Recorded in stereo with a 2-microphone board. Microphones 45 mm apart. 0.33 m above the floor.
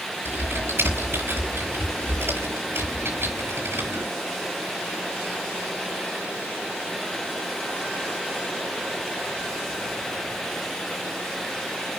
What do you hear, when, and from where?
0.2 s typing on a keyboard: 60° right (ahead or behind), 8 m